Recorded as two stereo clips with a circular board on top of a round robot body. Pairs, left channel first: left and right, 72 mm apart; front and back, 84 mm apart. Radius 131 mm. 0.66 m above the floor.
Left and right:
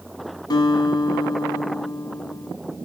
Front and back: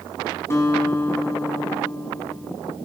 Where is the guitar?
60° left, 1.5 m.